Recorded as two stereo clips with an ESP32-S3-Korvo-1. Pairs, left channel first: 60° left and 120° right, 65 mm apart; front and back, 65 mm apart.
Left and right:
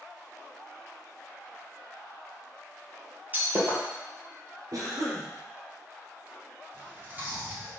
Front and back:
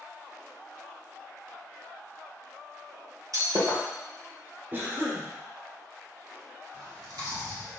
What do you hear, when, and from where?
3.3 s breaking glass: straight behind, 2 m
4.7 s a cough: 125° right, 3.5 m
6.7 s chewing: straight behind, 2 m